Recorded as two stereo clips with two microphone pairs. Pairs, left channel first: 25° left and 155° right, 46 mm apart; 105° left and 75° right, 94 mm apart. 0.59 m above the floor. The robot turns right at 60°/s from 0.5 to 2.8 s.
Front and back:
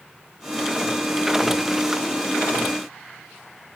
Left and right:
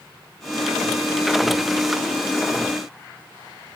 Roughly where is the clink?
I don't hear a clink.